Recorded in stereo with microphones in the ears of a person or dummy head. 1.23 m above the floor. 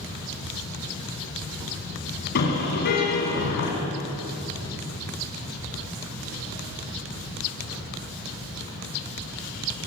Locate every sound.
2.4 s a car horn: 50° left (ahead or behind), 6 m